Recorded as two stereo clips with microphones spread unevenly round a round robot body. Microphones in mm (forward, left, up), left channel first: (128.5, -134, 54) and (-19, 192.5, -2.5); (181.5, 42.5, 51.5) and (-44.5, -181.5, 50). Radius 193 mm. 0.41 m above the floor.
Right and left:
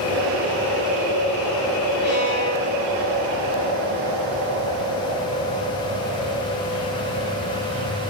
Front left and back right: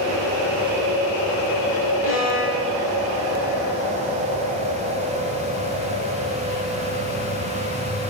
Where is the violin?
85° right, 8 m.